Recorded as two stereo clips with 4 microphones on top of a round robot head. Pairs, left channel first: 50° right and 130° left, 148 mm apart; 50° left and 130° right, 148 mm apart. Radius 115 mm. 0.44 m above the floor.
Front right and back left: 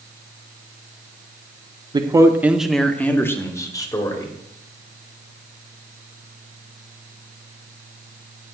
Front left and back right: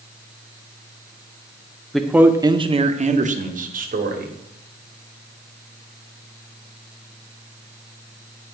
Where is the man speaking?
135° left, 0.9 m; by 4.3 s 115° right, 2 m.